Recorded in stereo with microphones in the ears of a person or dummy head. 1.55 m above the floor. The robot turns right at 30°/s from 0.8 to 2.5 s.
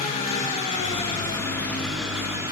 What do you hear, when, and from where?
0.0 s an engine running: 140° left, 7 m; by 2.5 s 165° right, 7 m